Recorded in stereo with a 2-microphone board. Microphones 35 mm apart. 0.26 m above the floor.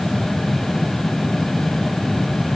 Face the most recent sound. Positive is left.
No sound to turn to.